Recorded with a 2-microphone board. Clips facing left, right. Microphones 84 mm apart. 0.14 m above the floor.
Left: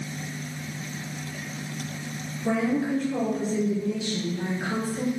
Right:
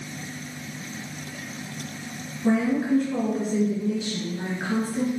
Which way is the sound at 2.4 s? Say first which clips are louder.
Right 3 dB; 40° right (ahead or behind).